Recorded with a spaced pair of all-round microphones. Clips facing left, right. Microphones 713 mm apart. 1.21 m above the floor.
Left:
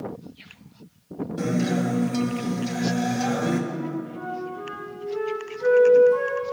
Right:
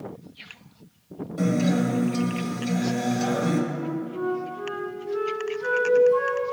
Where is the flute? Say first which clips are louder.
Right 1 dB; 70° left (ahead or behind), 3.5 m.